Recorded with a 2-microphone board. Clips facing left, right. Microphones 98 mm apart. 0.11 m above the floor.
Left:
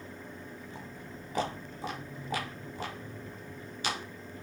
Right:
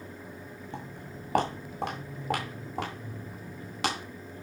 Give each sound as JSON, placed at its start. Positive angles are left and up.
{"t": 0.7, "sound": "footsteps", "side_deg": -65, "distance_m": 7.5}